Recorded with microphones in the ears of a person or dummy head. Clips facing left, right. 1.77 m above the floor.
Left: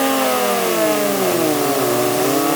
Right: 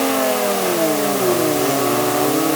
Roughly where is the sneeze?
No sneeze in this recording.